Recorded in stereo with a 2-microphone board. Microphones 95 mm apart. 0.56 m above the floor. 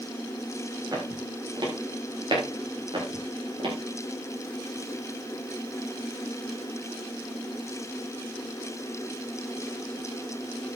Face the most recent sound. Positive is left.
turn(degrees=-60)  # may be behind; listen again after turning